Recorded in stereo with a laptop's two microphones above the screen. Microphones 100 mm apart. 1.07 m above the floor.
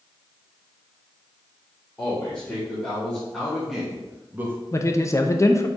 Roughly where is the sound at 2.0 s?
Centre.